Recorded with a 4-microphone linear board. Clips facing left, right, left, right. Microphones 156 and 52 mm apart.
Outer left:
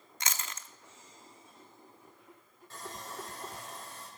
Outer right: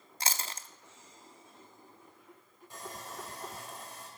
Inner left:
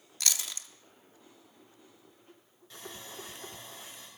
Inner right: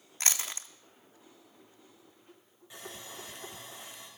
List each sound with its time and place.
0.2 s chewing: 35° right (ahead or behind), 0.5 m
2.7 s sawing: 15° right (ahead or behind), 4.5 m